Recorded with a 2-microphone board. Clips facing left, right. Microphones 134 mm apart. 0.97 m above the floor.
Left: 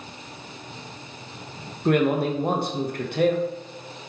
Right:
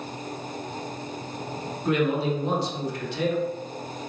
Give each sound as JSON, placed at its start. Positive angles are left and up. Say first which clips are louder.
{"t": 1.9, "sound": "a man speaking", "louder": "left 3 dB", "side_deg": 55, "distance_m": 0.6}